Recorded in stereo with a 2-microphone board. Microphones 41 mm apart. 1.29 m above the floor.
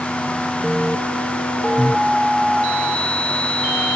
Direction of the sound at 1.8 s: 20° right (ahead or behind).